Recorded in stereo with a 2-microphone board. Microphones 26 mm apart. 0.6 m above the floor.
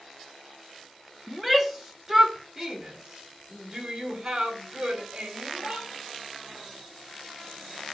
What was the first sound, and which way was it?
A shout, 5° left (ahead or behind).